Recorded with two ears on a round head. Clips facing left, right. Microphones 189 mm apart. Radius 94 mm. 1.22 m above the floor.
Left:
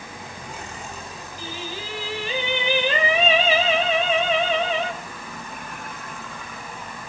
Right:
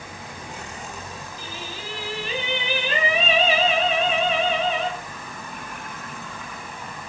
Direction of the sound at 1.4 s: 75° left (ahead or behind).